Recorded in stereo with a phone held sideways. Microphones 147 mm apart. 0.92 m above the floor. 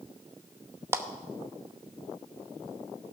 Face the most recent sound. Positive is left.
turn(degrees=-15)  # may be behind; listen again after turning